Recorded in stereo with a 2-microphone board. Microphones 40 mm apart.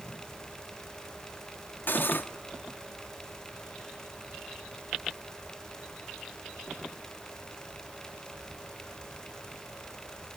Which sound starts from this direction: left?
Cutlery clinking, at 1.9 s.